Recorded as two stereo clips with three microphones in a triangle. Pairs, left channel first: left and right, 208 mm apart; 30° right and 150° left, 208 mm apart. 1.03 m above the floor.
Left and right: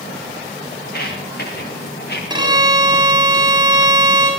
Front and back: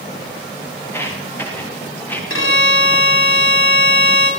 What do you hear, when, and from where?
0.8 s footsteps: 50° left, 10 m
2.3 s a violin: 20° right, 7.5 m